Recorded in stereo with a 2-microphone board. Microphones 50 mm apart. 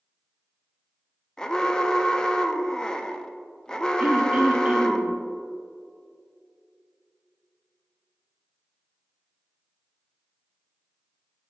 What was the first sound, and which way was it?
An alarm, 15° left (ahead or behind).